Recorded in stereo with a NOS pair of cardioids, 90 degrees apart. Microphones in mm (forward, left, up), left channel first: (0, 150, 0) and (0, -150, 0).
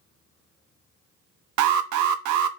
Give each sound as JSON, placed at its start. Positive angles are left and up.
{"t": 1.6, "sound": "an alarm", "azimuth_deg": -70, "distance_m": 0.5}